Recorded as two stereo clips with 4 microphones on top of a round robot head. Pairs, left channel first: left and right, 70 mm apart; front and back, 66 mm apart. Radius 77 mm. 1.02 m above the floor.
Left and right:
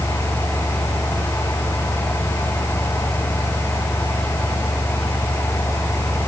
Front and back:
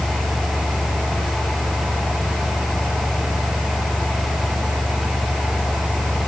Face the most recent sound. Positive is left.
No sound to turn to.